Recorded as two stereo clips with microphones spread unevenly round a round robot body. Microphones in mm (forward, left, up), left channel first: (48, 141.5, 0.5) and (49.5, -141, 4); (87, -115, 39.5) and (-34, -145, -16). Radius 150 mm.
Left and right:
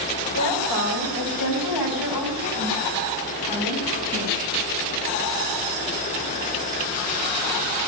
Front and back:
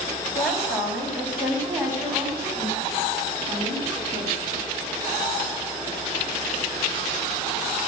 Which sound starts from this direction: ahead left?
A woman speaking, at 0.3 s.